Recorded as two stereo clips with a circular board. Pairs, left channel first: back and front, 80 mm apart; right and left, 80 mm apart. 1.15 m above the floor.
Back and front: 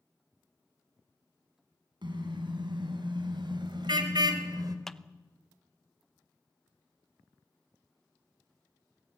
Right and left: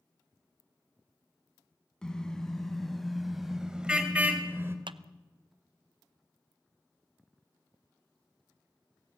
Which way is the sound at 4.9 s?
95° left.